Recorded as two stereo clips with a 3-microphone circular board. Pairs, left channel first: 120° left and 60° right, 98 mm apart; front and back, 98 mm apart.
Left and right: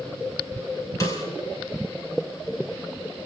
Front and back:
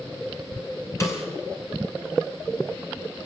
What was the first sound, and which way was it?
A snare drum, 65° left.